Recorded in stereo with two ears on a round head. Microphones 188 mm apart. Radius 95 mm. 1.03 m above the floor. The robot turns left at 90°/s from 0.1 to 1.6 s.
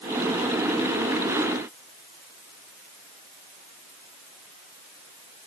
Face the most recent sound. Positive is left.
No sound to turn to.